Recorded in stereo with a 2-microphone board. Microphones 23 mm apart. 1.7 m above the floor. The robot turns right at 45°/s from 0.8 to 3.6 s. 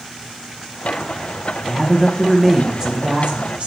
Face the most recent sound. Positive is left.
turn(degrees=-120)